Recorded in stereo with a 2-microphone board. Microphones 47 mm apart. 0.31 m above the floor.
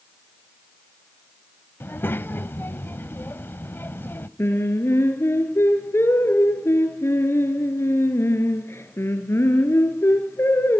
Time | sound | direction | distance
1.8 | a child speaking | 55° left (ahead or behind) | 0.9 m
4.4 | singing | 70° left (ahead or behind) | 3.5 m